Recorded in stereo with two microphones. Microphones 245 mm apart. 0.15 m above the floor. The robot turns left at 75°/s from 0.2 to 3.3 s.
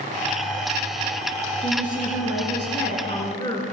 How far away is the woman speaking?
About 2 m.